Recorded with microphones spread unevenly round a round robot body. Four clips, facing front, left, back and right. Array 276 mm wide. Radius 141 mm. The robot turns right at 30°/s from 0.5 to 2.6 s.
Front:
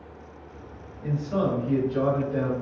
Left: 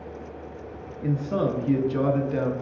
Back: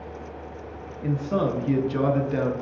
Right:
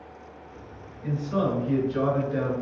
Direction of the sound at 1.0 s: 125° left.